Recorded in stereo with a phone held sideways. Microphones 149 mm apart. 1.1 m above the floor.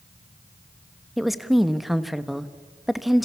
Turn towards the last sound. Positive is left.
turn(degrees=0)  # may be behind; listen again after turning